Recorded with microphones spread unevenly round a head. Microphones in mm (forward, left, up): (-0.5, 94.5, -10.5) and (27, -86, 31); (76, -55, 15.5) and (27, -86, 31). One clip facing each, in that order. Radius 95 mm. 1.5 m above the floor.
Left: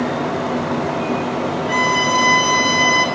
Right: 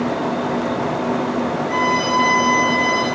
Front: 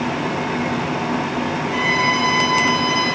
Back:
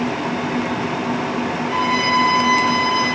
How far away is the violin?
About 7.5 m.